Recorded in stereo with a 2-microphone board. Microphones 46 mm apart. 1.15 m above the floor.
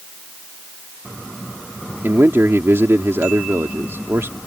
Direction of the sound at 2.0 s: 65° right (ahead or behind).